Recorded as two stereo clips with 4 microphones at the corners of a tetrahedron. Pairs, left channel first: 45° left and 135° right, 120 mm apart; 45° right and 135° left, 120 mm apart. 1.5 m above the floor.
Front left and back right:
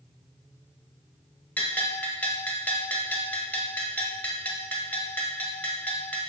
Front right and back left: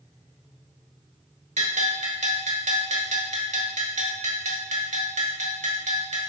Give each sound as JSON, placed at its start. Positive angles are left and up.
{"t": 1.6, "sound": "a bell", "azimuth_deg": 120, "distance_m": 1.2}